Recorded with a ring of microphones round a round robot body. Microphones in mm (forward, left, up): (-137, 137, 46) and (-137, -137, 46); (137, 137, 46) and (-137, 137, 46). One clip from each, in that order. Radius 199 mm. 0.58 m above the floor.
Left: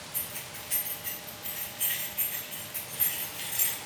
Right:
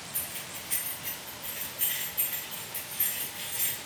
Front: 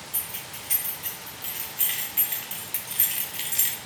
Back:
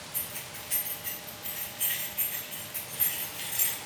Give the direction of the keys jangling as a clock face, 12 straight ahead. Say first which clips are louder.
Right 1 dB, front 4 dB; 12 o'clock.